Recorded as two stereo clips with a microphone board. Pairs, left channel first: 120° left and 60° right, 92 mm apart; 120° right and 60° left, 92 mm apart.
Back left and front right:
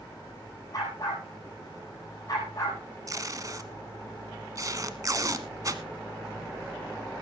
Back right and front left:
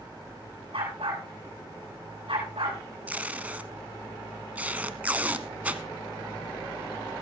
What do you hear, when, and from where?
0.7 s a dog barking: 70° left, 7 m
3.1 s tape being pulled: 10° right, 1.3 m